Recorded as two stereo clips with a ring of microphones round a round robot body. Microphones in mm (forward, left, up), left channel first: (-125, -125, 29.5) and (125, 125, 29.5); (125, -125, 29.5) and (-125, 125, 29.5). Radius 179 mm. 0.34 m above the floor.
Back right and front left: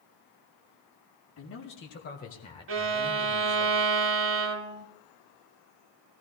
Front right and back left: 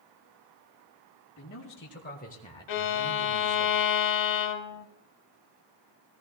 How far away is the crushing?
I don't hear crushing.